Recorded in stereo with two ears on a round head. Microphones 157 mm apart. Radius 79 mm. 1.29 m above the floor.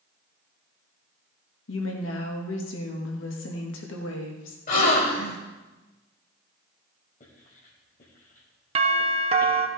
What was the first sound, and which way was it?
A woman speaking, 75° left (ahead or behind).